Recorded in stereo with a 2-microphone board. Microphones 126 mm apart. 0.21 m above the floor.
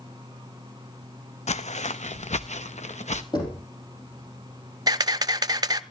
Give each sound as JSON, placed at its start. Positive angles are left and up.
{"t": 1.5, "sound": "footsteps", "side_deg": 70, "distance_m": 0.5}
{"t": 3.3, "sound": "knocking", "side_deg": 40, "distance_m": 4.5}
{"t": 4.9, "sound": "a camera shutter", "side_deg": -35, "distance_m": 0.6}